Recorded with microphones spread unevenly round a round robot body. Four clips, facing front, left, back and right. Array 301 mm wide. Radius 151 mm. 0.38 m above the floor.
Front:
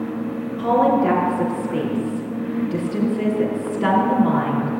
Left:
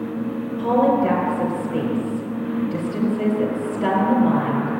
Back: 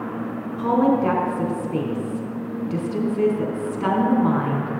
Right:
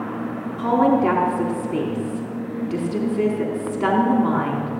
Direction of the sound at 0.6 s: 130° right.